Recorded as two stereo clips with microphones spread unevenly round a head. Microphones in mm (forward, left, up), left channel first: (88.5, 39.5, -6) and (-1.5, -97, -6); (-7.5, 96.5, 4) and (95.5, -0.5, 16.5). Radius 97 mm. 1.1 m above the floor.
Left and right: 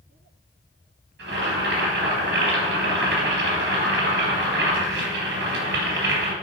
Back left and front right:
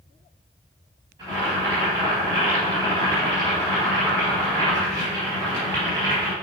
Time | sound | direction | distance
1.2 | boiling | 115° right | 3.5 m